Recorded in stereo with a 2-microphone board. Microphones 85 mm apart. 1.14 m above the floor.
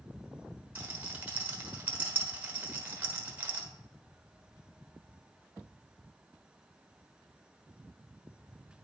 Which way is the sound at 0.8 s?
20° right (ahead or behind).